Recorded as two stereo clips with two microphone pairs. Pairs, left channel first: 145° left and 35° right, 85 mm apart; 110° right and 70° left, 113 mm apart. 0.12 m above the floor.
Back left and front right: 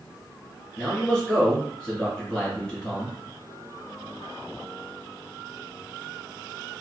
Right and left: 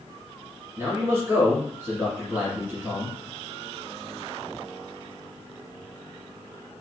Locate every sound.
0.8 s a man speaking: 85° left, 1.3 m